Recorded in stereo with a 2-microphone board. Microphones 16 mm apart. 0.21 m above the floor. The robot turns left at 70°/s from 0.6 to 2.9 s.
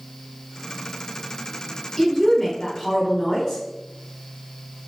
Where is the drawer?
No drawer in this recording.